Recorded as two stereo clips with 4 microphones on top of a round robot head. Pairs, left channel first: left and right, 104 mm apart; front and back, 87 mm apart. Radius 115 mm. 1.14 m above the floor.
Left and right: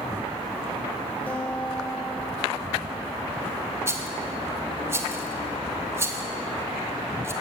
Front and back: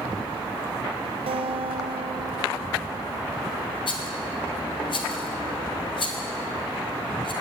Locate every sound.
1.3 s a guitar: 170° left, 0.6 m
3.9 s a rattle: 25° right, 1.1 m